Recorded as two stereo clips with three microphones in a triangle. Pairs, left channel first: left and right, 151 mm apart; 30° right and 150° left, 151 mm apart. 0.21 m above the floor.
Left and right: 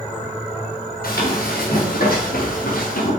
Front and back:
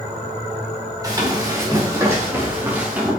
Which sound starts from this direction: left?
Running footsteps, at 1.0 s.